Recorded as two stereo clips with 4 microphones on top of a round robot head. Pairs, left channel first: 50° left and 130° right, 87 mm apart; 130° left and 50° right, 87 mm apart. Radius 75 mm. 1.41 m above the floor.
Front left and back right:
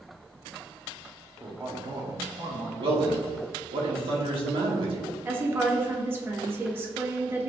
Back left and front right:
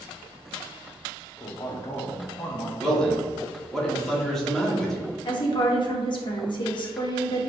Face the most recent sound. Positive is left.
turn(degrees=165)